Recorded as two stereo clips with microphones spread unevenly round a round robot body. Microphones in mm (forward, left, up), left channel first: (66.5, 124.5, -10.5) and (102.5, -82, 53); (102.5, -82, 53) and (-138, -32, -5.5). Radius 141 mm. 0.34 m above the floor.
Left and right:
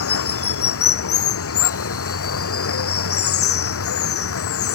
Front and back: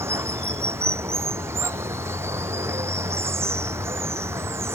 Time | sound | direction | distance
0.0 | running water | 85° left | ?